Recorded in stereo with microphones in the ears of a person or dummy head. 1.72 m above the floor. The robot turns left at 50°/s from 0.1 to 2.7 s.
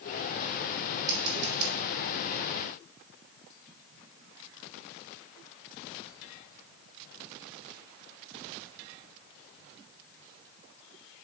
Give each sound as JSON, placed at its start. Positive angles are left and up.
{"t": 1.1, "sound": "scissors", "side_deg": -25, "distance_m": 4.5}